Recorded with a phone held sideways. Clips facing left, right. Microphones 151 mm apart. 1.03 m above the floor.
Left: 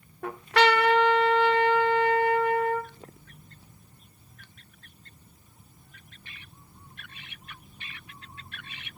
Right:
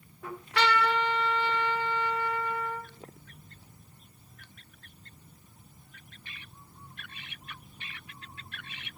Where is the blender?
I don't hear a blender.